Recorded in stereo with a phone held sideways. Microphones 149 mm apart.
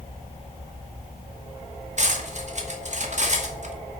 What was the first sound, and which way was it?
Cutlery clinking, 55° right (ahead or behind).